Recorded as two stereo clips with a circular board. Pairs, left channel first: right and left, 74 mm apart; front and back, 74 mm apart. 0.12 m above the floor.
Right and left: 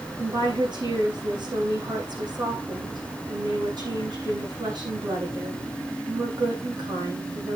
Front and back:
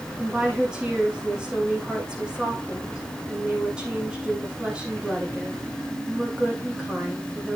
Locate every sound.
0.2 s a woman speaking: 100° left, 6 m